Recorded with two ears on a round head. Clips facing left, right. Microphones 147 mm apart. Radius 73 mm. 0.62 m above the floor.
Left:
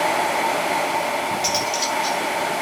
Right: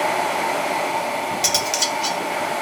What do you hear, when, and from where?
1.4 s cutlery clinking: 65° right (ahead or behind), 1.5 m